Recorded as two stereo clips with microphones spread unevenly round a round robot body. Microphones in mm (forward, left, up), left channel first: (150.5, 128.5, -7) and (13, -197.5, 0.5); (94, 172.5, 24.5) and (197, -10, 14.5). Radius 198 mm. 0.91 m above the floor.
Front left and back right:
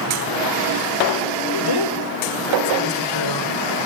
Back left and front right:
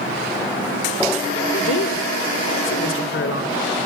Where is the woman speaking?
105° left, 3 m.